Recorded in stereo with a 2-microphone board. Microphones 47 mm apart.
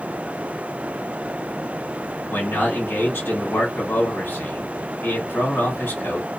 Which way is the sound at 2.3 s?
60° left (ahead or behind).